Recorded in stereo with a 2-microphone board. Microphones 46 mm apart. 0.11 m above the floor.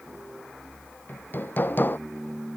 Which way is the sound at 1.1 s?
45° left (ahead or behind).